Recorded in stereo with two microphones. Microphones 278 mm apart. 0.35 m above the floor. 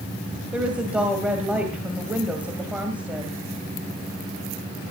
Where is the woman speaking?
5° right (ahead or behind), 2.5 m.